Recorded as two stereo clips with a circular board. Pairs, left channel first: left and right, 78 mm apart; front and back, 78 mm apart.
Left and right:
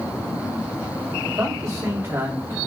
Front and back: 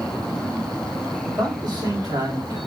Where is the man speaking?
140° right, 4 m.